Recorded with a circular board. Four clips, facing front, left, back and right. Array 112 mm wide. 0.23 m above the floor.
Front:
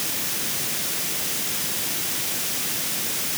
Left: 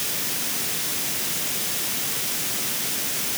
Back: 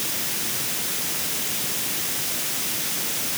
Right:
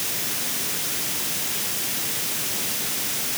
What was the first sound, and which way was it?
Only background noise.